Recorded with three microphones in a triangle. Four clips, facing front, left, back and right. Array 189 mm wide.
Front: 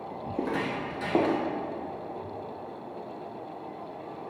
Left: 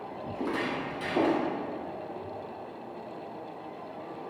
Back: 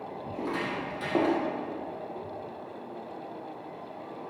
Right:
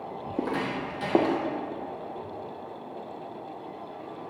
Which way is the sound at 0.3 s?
65° right.